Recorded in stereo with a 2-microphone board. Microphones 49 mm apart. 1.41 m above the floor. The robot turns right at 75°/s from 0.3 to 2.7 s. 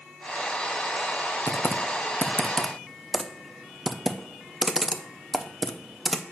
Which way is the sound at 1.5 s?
80° left.